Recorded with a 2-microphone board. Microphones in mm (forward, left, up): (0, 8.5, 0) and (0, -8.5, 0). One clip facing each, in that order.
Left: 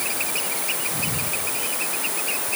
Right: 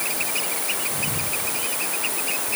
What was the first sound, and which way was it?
Only background noise.